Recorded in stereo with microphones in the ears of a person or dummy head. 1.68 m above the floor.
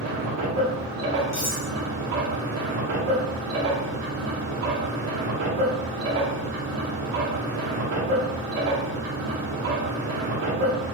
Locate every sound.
0.0 s a machine running: 60° right (ahead or behind), 1.1 m
1.3 s cutlery clinking: 15° left (ahead or behind), 1.0 m